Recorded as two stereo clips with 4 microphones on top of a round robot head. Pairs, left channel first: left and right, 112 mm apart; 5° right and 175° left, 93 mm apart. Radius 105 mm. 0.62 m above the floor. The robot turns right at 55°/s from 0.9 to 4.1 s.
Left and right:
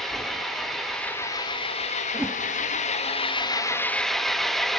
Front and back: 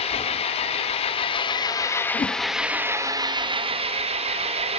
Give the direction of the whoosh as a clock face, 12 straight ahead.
12 o'clock.